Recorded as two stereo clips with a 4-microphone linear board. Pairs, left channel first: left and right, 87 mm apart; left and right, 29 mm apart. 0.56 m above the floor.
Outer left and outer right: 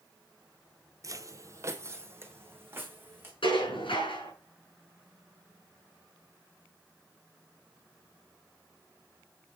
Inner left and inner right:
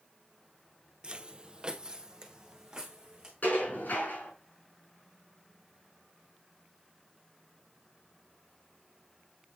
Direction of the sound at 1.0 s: 40° right (ahead or behind).